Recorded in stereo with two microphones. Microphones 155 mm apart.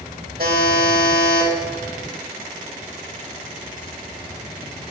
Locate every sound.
0.4 s a buzzer: 75° right (ahead or behind), 3 m